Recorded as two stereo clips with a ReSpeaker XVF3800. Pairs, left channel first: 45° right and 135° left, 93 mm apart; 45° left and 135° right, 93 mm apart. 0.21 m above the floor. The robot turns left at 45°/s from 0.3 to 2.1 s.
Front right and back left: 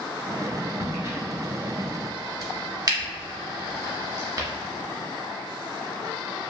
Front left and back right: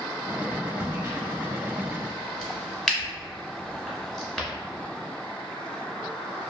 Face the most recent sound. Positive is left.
turn(degrees=125)